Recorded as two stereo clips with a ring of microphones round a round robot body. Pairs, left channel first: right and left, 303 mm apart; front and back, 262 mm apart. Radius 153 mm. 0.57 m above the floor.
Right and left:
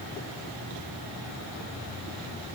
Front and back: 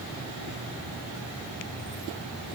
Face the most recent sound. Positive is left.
No sound to turn to.